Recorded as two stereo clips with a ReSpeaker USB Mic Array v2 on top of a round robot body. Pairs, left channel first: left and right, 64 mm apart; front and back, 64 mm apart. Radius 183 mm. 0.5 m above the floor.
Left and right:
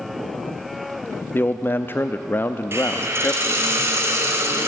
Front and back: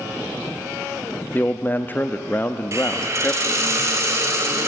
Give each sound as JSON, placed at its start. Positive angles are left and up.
{"t": 1.3, "sound": "a man speaking", "azimuth_deg": 50, "distance_m": 1.1}
{"t": 2.7, "sound": "a hiss", "azimuth_deg": -140, "distance_m": 4.0}